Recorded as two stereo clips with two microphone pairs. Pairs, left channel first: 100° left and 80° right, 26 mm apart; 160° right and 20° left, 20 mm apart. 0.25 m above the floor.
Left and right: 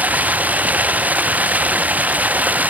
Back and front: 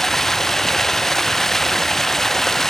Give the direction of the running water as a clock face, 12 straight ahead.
3 o'clock.